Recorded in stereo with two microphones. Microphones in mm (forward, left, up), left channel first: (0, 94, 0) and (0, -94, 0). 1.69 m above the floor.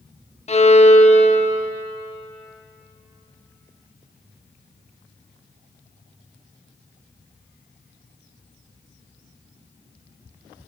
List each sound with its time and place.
0.5 s a violin: 35° left (ahead or behind), 0.7 m